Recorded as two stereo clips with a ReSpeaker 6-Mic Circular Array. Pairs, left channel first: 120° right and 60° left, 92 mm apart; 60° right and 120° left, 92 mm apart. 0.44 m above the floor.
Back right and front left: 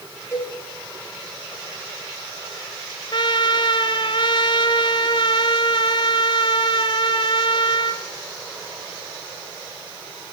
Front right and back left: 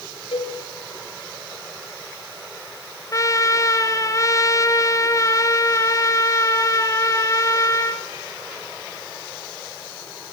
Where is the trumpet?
105° right, 1.6 m.